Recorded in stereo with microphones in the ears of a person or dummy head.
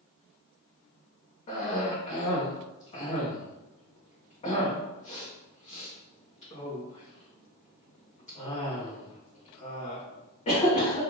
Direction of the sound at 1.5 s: 30° left (ahead or behind).